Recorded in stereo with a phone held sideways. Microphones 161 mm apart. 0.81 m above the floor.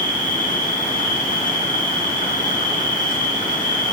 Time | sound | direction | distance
0.0 | an insect | 65° left (ahead or behind) | 6 m